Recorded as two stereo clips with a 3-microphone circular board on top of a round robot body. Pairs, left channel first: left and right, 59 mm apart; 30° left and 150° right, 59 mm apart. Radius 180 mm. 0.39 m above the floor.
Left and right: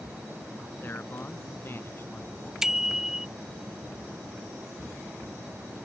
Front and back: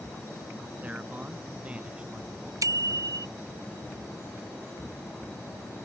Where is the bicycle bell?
170° right.